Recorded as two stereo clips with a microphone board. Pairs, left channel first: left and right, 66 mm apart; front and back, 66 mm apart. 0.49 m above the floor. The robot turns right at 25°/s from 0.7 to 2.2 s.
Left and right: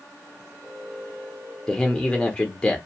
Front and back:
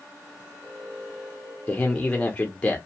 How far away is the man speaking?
About 0.7 m.